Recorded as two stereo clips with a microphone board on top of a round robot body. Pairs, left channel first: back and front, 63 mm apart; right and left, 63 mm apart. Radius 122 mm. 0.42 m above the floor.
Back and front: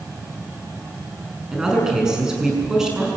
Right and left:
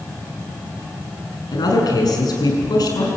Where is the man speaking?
80° right, 7 m.